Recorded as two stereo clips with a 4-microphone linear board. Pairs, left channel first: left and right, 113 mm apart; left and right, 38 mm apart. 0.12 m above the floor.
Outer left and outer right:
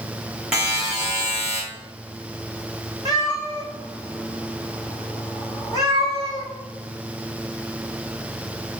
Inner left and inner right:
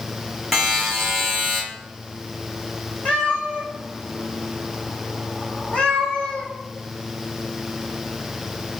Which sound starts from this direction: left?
A cat meowing, at 3.0 s.